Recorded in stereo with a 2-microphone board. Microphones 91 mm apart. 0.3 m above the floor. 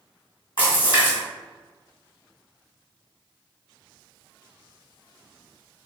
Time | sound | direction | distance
0.6 | a splash | 55° left (ahead or behind) | 1.8 m